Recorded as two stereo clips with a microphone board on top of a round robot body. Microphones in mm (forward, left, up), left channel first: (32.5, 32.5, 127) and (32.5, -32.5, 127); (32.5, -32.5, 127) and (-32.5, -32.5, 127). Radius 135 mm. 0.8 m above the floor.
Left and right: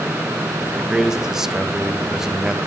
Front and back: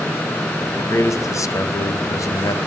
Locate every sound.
0.8 s a man speaking: 10° right, 1.2 m